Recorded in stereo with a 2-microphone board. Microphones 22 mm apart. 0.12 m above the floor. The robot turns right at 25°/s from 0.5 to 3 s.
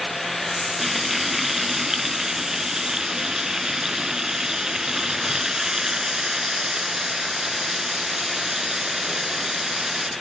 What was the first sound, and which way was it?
Frying, 5° right (ahead or behind).